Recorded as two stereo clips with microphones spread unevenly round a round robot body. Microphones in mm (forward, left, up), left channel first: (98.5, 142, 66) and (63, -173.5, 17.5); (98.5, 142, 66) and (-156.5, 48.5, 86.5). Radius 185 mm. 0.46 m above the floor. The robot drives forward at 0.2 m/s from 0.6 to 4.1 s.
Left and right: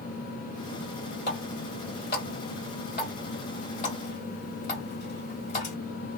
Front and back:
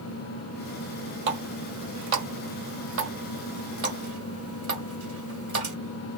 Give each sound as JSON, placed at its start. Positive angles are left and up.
{"t": 1.3, "sound": "a running tap", "azimuth_deg": 150, "distance_m": 1.8}